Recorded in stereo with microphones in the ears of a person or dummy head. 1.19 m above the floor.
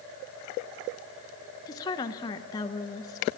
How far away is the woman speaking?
About 0.8 m.